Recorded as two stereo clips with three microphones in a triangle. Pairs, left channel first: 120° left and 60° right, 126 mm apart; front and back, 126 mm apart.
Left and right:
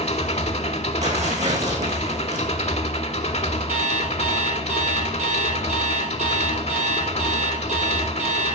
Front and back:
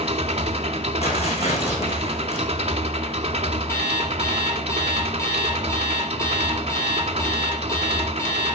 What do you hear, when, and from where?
0.0 s an engine running: 145° left, 1.1 m
1.0 s tearing paper: 35° right, 4.5 m
3.7 s an alarm clock: 65° right, 4 m